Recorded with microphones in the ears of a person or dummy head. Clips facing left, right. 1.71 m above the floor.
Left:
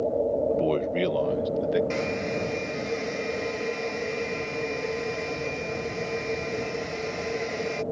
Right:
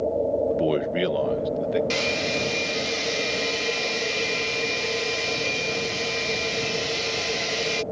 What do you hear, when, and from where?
0.5 s a man speaking: 20° right (ahead or behind); by 1.8 s 5° left (ahead or behind)
1.9 s a hair dryer: 50° right (ahead or behind)